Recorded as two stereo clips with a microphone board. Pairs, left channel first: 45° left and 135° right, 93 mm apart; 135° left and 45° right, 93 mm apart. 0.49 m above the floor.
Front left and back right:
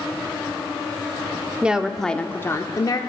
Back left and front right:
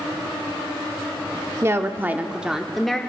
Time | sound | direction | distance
1.6 | a woman speaking | 70° right | 0.7 m